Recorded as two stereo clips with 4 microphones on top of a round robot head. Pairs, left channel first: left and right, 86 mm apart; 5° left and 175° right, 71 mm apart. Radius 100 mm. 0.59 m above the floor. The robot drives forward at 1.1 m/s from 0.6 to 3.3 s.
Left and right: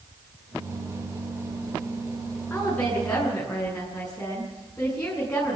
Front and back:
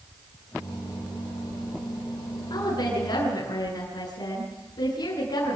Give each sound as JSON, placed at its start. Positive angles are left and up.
{"t": 2.5, "sound": "a woman speaking", "azimuth_deg": 10, "distance_m": 8.0}